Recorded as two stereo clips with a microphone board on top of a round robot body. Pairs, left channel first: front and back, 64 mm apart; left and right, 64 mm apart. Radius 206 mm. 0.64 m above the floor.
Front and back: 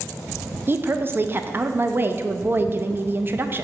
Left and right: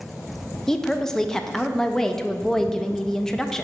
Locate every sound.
0.7 s a woman speaking: 165° left, 0.5 m